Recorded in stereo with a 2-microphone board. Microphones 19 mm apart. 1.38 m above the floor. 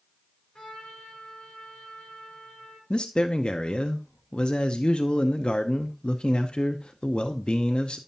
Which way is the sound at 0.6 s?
45° left (ahead or behind).